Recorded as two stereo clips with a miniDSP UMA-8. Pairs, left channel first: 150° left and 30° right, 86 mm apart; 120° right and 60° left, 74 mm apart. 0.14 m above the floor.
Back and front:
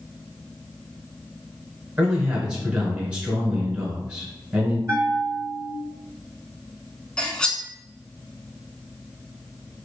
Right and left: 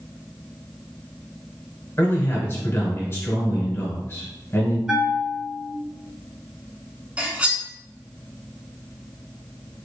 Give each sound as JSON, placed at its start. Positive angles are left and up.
{"t": 2.0, "sound": "a man speaking", "azimuth_deg": -95, "distance_m": 1.3}
{"t": 4.9, "sound": "a bell", "azimuth_deg": -10, "distance_m": 0.6}
{"t": 7.2, "sound": "cutlery clinking", "azimuth_deg": 90, "distance_m": 0.6}